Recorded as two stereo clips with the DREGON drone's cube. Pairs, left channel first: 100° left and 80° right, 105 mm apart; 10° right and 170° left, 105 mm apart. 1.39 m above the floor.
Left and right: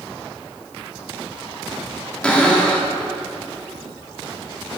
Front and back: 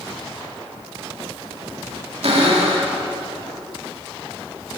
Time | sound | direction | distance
2.2 | a cupboard door | straight behind | 1.8 m